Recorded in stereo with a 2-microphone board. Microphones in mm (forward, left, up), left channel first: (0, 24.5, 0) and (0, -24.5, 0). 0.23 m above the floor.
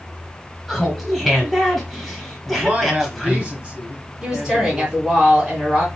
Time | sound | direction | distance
0.7 | laughter | centre (ahead or behind) | 1.1 m
2.5 | a man speaking | 30° right (ahead or behind) | 1.2 m
4.2 | a woman speaking | 20° right (ahead or behind) | 1.8 m